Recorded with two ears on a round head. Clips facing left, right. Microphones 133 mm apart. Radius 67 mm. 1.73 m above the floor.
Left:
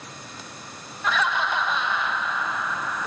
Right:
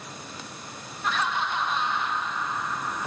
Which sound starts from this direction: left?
Laughter, at 1.0 s.